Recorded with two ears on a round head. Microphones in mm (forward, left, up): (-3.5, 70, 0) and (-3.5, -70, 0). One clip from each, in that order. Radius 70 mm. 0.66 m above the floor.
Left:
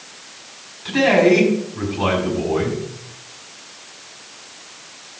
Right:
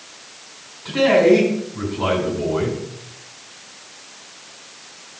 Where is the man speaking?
55° left (ahead or behind), 5.5 m.